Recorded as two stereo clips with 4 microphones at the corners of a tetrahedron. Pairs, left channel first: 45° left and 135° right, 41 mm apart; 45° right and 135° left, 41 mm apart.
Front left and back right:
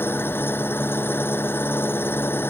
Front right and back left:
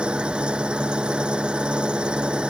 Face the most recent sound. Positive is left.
turn(degrees=70)